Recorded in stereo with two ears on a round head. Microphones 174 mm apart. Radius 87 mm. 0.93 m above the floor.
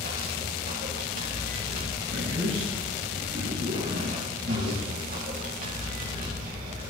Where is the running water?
50° right (ahead or behind), 6.5 m.